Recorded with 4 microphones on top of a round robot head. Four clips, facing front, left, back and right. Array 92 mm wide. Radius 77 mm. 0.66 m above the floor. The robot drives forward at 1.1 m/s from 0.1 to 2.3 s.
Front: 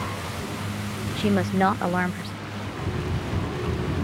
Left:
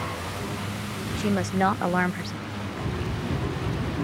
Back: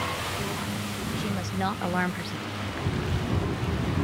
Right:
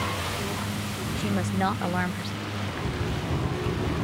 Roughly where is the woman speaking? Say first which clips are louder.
Left 3 dB, front 10 dB; ahead.